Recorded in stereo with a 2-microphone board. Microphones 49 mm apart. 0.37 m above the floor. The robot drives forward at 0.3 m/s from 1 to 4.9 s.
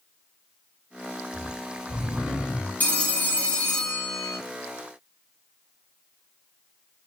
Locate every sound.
1.3 s snoring: 15° right (ahead or behind), 1.6 m; by 2.7 s 20° right (ahead or behind), 1.4 m
2.8 s a phone ringing: 35° left (ahead or behind), 1.0 m; by 4.4 s 25° left (ahead or behind), 1.3 m